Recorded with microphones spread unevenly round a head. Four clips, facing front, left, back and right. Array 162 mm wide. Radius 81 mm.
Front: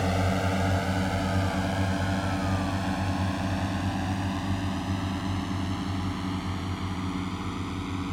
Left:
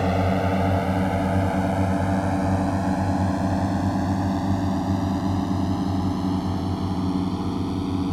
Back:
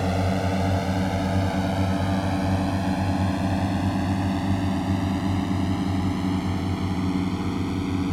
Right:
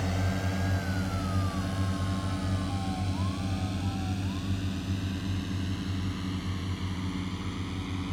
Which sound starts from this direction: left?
A drone, at 0.0 s.